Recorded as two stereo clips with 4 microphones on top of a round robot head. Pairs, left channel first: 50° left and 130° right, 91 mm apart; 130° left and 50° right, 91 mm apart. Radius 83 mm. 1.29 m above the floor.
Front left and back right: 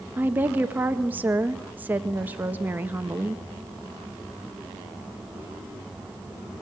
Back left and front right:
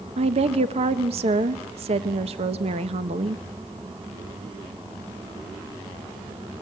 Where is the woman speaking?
60° right, 1.3 m.